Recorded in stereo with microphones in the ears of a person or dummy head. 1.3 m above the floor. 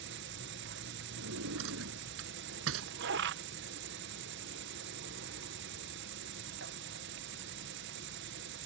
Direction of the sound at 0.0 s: 60° right (ahead or behind).